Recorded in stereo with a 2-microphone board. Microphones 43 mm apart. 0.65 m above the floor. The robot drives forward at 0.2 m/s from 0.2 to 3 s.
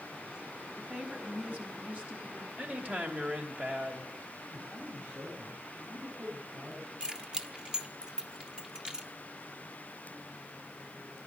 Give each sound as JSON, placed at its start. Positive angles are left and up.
{"t": 0.8, "sound": "a woman speaking", "side_deg": -40, "distance_m": 4.5}
{"t": 2.6, "sound": "a woman speaking", "side_deg": -40, "distance_m": 2.5}
{"t": 4.5, "sound": "a man speaking", "side_deg": -55, "distance_m": 4.5}
{"t": 7.0, "sound": "keys jangling", "side_deg": -20, "distance_m": 1.0}